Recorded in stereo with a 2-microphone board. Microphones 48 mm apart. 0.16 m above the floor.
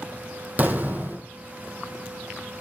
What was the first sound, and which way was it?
An explosion, 35° right (ahead or behind).